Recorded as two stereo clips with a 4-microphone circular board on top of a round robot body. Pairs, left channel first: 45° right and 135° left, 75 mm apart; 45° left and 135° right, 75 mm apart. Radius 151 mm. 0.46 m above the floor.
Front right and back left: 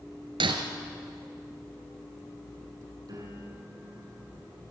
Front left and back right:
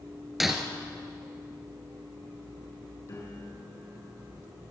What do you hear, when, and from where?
0.4 s breaking glass: 135° left, 2 m
3.1 s a piano: 100° left, 6 m